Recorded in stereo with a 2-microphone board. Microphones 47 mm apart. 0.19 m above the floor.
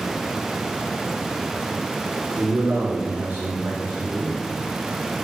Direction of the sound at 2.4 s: 70° right (ahead or behind).